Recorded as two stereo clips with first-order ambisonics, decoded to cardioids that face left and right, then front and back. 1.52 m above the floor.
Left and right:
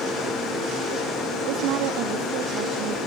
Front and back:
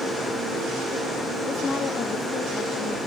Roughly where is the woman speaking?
Right.